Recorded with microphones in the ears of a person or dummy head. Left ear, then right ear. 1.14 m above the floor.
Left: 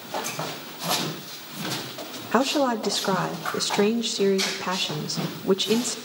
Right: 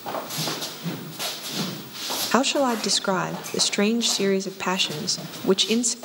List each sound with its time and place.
2.3 s a woman speaking: 70° right (ahead or behind), 1.1 m